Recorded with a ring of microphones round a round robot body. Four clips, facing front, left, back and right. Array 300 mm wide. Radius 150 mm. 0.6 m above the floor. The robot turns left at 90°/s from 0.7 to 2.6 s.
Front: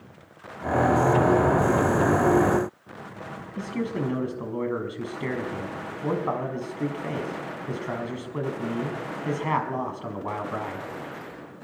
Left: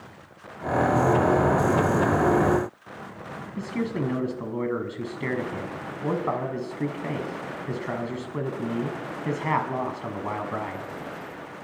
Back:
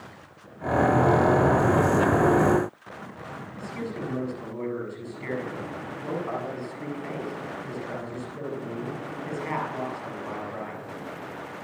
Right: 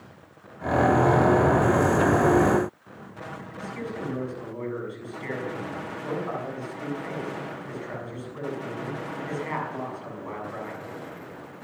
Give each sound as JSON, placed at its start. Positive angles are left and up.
{"t": 3.6, "sound": "a man speaking", "azimuth_deg": 55, "distance_m": 6.5}